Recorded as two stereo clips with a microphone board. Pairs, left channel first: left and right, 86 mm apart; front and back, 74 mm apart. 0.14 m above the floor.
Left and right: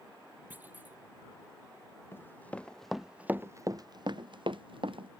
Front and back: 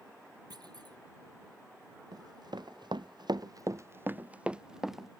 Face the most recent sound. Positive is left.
turn(degrees=-90)